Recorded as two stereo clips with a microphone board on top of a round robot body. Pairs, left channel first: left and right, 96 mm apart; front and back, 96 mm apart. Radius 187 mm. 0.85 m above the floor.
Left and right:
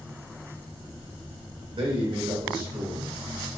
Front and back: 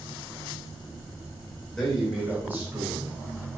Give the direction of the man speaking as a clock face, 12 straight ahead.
3 o'clock.